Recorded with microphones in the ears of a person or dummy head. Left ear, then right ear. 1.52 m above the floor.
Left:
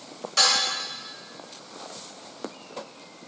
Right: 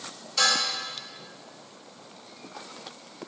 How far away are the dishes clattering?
About 1.2 m.